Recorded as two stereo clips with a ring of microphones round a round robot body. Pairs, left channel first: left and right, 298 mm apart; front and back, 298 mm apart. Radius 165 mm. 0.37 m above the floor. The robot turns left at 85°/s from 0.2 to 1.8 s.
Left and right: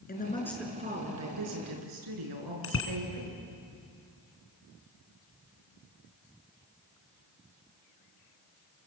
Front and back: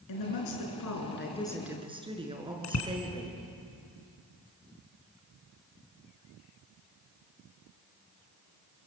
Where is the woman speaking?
30° left, 5 m; by 3.4 s 105° right, 5 m.